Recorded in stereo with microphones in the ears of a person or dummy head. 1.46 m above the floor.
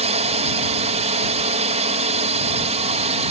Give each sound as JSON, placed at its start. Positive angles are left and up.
{"t": 0.0, "sound": "a drone", "side_deg": -30}